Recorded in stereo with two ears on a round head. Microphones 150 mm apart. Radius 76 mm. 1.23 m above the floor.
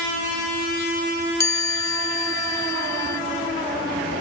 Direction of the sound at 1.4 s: 20° left (ahead or behind).